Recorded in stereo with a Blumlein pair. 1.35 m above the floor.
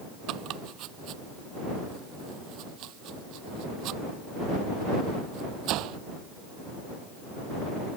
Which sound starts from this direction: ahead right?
Chopping, at 0.3 s.